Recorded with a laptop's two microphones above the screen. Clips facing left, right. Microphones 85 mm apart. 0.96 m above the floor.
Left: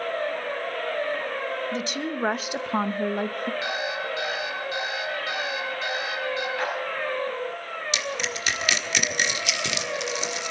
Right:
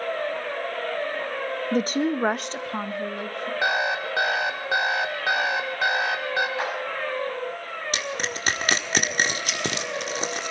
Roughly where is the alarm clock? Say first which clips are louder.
Right 5 dB; right.